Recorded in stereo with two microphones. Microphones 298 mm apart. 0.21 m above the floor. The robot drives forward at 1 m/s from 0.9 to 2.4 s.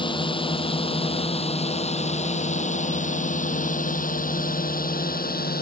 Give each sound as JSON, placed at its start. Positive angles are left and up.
{"t": 0.0, "sound": "a drone", "side_deg": 15}